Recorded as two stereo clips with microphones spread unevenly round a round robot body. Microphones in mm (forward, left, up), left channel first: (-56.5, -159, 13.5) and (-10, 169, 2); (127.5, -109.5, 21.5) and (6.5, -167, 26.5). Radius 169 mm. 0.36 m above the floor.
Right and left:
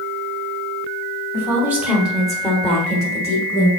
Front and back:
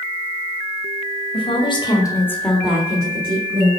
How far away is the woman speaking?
About 2 m.